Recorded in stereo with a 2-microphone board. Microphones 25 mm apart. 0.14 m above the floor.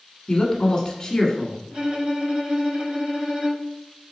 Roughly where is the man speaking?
Left.